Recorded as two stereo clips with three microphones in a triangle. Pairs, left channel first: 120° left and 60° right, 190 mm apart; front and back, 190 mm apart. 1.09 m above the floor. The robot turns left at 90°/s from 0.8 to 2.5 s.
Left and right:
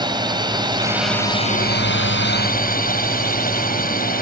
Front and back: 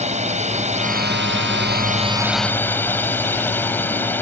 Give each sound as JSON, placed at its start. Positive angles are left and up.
{"t": 0.0, "sound": "a drone", "azimuth_deg": -130}